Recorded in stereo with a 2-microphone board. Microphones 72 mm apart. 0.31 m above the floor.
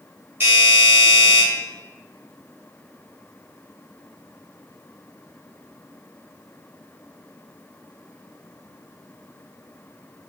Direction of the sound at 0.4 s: 30° right (ahead or behind).